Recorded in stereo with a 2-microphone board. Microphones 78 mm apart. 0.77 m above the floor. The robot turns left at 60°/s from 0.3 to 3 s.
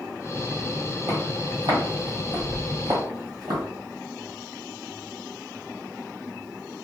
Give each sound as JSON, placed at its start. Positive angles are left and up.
{"t": 1.1, "sound": "footsteps", "side_deg": -40, "distance_m": 1.4}